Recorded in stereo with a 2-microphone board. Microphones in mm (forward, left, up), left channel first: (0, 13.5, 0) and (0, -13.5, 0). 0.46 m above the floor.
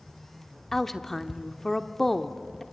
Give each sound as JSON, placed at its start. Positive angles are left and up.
{"t": 0.7, "sound": "a woman speaking", "side_deg": 10, "distance_m": 0.7}